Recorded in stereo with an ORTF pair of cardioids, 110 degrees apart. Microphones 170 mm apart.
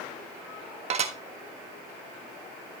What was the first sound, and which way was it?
Dishes clattering, 40° right.